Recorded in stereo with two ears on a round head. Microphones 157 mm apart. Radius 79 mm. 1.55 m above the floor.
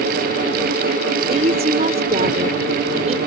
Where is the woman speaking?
40° right (ahead or behind).